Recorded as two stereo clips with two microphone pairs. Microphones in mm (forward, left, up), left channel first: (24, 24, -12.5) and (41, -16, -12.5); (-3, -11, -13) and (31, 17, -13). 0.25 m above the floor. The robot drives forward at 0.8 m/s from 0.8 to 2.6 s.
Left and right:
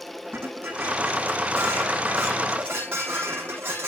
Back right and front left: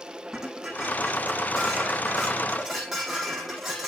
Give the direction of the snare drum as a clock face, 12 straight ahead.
No snare drum in this recording.